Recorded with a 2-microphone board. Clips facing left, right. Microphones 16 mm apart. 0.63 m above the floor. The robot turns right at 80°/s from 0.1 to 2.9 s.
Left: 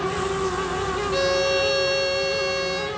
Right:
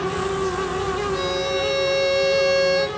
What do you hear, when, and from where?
1.1 s a violin: 100° left, 1.9 m; by 2.9 s 120° right, 1.9 m